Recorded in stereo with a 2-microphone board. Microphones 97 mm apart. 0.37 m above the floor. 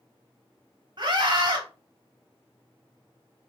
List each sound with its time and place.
1.0 s a scream: 50° right (ahead or behind), 2 m